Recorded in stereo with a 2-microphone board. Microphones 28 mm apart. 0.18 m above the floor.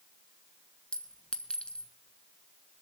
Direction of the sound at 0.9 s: 40° left (ahead or behind).